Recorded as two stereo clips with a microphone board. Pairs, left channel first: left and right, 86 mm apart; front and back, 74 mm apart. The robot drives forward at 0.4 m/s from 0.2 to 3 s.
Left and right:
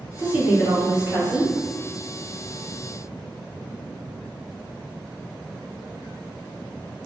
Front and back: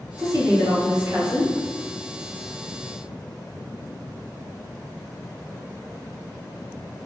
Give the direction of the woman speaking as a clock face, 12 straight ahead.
5 o'clock.